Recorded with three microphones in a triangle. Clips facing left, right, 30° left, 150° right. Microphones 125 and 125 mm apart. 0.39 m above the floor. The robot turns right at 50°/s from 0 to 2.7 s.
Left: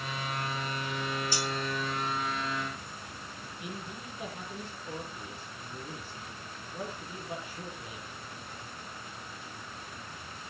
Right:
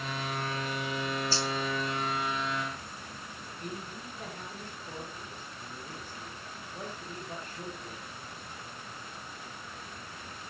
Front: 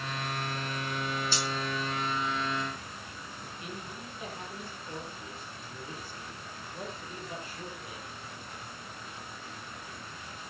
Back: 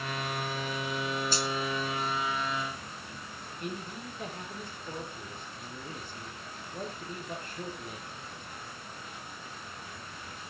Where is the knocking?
I don't hear knocking.